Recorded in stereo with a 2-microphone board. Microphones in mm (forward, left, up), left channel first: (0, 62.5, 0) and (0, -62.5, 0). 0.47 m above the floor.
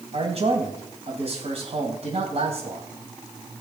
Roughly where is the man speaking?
Right.